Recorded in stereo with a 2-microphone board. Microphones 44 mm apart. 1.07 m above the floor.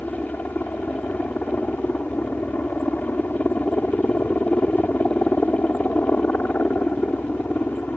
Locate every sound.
0.0 s a helicopter: 45° left (ahead or behind)